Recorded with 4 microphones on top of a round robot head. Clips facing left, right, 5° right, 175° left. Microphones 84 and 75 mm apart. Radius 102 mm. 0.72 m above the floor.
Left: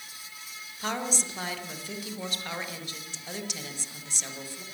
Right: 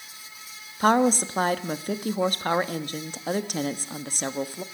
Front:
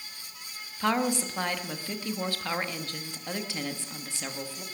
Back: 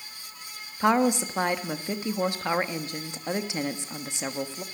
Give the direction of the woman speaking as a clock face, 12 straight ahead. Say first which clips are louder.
Right 12 dB, back 5 dB; 4 o'clock.